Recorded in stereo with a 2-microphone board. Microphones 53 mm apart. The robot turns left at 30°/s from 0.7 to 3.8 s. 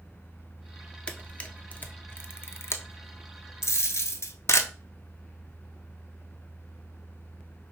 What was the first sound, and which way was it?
A camera shutter, 20° left (ahead or behind).